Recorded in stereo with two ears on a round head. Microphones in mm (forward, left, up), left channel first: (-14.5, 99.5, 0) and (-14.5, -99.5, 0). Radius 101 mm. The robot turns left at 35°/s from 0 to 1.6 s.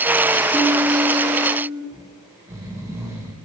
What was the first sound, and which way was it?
A piano, 10° right (ahead or behind).